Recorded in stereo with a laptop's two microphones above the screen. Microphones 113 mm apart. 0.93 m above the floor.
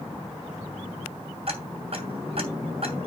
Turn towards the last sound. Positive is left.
turn(degrees=-55)  # may be behind; listen again after turning